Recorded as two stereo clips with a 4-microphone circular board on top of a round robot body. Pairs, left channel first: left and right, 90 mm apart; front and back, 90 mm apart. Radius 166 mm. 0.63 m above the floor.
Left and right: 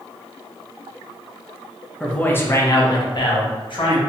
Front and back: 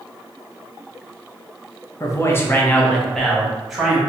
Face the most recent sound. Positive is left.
turn(degrees=95)